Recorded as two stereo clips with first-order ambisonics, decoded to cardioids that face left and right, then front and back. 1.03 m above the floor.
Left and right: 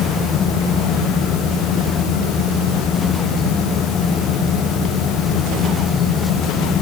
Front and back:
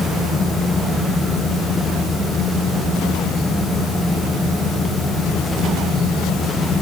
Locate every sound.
Only background noise.